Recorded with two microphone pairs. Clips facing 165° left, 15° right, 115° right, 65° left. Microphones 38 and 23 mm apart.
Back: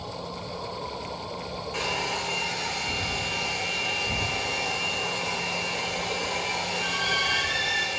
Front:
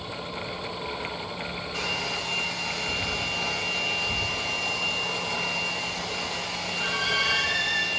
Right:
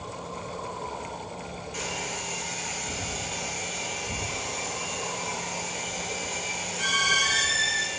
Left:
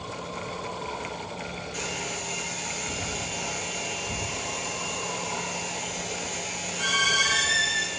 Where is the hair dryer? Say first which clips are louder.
Back 1 dB, right 1 dB; 155° left, 3 m.